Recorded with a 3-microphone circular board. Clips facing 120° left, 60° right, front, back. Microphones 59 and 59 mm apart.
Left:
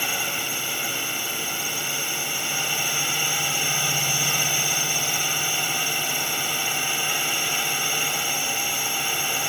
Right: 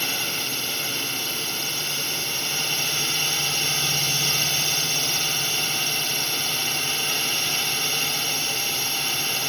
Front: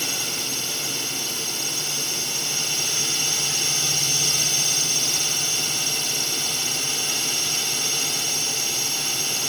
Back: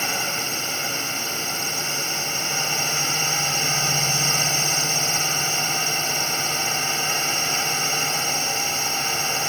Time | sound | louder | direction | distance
0.0 | a drone | left 1 dB, back 5 dB | 175° right | ?